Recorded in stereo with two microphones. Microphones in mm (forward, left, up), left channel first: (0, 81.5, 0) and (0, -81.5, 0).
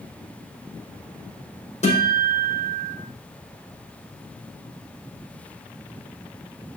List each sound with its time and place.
1.8 s a guitar: 45° left (ahead or behind), 5.5 m